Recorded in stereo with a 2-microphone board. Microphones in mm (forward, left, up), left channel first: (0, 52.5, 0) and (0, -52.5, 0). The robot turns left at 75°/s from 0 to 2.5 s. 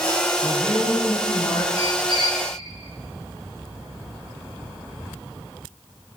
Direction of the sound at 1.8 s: 100° right.